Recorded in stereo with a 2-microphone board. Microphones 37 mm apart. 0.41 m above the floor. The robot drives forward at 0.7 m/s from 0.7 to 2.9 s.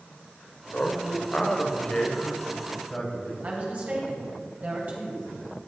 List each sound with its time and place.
0.7 s a man speaking: 40° left (ahead or behind), 1.0 m; by 3.3 s 20° left (ahead or behind), 2 m
3.4 s a woman speaking: 45° right (ahead or behind), 2.5 m